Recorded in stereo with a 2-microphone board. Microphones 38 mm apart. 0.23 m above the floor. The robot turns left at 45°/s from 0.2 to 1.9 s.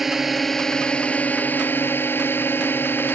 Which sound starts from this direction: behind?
A drone, at 0.0 s.